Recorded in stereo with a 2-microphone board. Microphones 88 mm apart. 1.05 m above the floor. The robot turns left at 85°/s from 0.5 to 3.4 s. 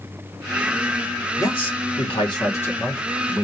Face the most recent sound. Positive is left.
turn(degrees=-40)